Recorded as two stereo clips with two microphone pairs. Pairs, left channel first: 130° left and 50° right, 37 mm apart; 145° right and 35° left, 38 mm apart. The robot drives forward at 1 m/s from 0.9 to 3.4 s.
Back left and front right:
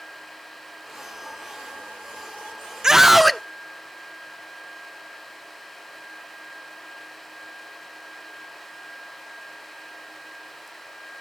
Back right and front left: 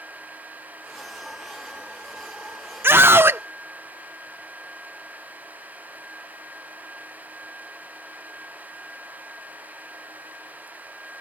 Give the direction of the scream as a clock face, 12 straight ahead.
11 o'clock.